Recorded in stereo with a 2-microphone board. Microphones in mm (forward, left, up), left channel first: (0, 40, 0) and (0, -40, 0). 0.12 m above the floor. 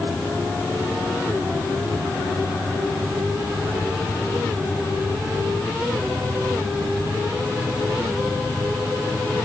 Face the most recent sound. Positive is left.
No sound to turn to.